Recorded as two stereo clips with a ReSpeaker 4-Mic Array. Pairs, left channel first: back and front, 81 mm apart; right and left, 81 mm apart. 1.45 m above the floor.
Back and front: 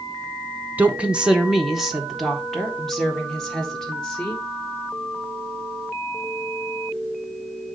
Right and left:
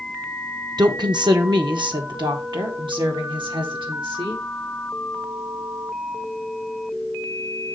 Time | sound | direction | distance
0.8 | a woman speaking | 65° left | 0.7 m